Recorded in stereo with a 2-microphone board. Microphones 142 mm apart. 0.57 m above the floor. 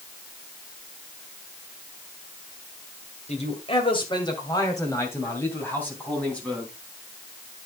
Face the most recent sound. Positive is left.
turn(degrees=5)  # may be behind; listen again after turning